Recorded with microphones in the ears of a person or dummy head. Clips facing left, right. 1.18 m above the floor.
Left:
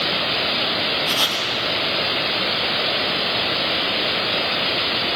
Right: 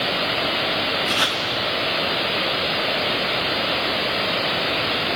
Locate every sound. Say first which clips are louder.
1.1 s writing: right 1 dB; 30° right (ahead or behind), 1.9 m